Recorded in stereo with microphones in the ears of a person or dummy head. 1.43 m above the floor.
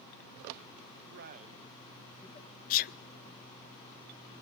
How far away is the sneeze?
About 0.6 m.